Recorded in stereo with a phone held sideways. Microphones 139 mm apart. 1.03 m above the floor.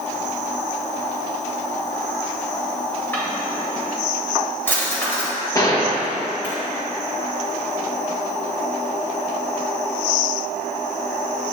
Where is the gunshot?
25° left (ahead or behind), 1.1 m.